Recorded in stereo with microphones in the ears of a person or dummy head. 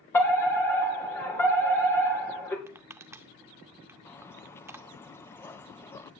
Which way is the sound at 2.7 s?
10° right (ahead or behind).